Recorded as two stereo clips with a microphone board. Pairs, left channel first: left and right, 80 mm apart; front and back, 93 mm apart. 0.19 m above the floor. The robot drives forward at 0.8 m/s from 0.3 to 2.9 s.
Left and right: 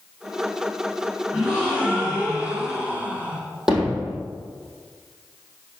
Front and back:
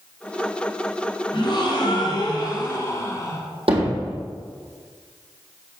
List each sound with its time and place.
1.3 s a gasp: 15° right, 2.5 m; by 3.4 s 35° right, 1.8 m
3.7 s hammering: 175° right, 3 m